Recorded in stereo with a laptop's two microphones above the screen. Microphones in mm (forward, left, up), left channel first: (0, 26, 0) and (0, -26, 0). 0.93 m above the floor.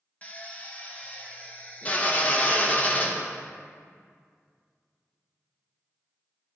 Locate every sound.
0.2 s a drill: 30° left (ahead or behind), 0.7 m